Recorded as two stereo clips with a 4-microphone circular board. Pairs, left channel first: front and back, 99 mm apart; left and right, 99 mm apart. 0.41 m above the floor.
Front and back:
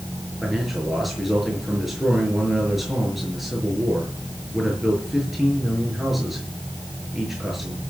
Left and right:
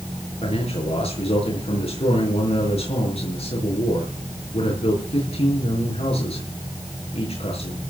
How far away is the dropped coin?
I don't hear a dropped coin.